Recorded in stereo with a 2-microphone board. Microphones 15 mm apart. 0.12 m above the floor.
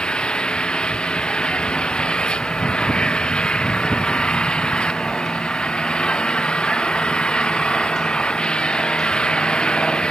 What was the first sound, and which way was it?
An engine running, 85° left.